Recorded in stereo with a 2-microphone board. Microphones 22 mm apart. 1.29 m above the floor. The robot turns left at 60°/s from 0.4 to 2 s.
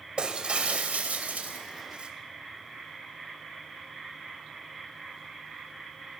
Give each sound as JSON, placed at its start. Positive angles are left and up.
{"t": 0.2, "sound": "breaking glass", "azimuth_deg": -40, "distance_m": 3.5}